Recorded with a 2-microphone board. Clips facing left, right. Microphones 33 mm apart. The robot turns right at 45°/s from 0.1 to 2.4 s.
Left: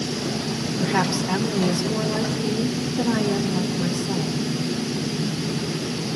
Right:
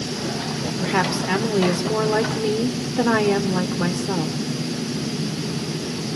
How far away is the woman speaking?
About 1.5 m.